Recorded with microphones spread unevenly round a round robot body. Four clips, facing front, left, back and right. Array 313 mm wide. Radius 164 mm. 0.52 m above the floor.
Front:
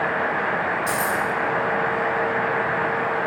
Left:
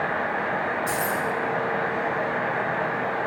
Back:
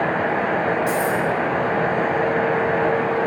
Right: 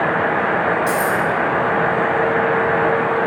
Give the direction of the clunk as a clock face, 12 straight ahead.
No clunk in this recording.